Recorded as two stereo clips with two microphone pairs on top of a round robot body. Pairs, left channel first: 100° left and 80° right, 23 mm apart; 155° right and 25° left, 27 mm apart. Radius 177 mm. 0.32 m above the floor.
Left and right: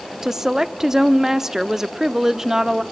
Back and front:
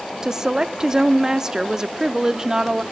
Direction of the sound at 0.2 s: 30° right.